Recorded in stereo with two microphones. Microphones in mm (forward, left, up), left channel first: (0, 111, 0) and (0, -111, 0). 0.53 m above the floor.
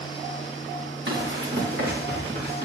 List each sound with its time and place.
1.1 s running footsteps: 60° right (ahead or behind), 2.5 m; by 2.6 s 45° right (ahead or behind), 4.5 m